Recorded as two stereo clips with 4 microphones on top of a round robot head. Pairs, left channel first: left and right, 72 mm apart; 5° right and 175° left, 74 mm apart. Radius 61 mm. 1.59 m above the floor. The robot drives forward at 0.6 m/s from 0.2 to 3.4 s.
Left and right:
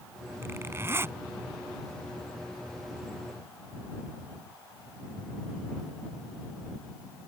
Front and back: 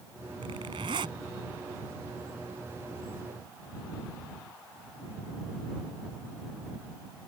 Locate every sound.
0.4 s a zipper: 145° right; by 1.2 s 150° right